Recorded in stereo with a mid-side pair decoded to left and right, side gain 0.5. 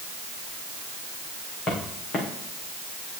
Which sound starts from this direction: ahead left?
Footsteps, at 1.7 s.